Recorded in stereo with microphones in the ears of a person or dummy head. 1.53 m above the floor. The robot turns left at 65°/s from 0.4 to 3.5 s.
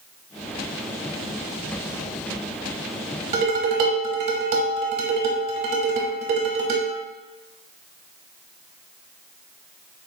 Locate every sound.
3.3 s dishes clattering: 45° right (ahead or behind), 0.9 m; by 6.9 s 50° right (ahead or behind), 0.9 m